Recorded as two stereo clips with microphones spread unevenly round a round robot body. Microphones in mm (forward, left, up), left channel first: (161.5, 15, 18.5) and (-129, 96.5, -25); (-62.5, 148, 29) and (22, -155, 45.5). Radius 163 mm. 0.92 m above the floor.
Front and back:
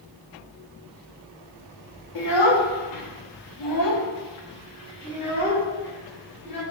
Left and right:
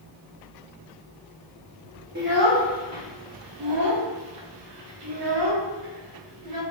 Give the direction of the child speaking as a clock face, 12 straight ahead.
12 o'clock.